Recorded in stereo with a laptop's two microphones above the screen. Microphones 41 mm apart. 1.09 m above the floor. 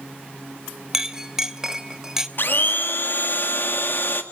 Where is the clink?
15° right (ahead or behind), 0.7 m.